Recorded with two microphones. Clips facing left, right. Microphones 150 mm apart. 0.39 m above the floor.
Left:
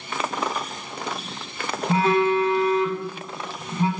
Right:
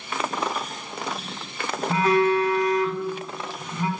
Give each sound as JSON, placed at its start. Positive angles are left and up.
{"t": 1.9, "sound": "a phone buzzing", "side_deg": 25, "distance_m": 0.5}